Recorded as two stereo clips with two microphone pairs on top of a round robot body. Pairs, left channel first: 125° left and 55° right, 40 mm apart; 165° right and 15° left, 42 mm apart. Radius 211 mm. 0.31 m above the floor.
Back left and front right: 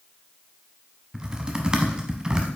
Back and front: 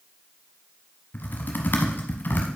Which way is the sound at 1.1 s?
125° right.